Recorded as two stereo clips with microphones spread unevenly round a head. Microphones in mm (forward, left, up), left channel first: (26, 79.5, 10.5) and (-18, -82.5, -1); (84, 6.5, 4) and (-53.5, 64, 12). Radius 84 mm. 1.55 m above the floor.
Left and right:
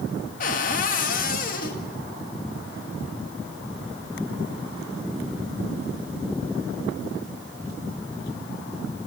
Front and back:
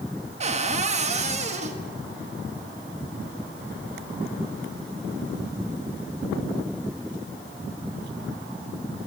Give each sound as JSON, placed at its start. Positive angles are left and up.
{"t": 0.4, "sound": "a cupboard door", "azimuth_deg": 115, "distance_m": 1.9}